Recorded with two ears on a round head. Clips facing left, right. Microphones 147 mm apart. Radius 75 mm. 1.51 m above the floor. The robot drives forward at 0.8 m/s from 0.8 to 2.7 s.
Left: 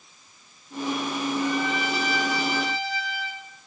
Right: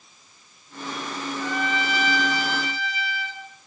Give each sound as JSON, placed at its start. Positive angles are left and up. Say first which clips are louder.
{"t": 1.4, "sound": "a trumpet", "louder": "left 1 dB", "side_deg": -65, "distance_m": 4.0}